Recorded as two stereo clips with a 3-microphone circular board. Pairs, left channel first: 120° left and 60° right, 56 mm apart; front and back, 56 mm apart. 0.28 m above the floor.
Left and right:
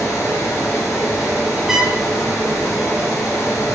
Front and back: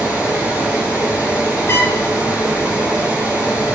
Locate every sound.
0.0 s running water: 110° left, 3 m
1.7 s a trumpet: 20° left, 1.1 m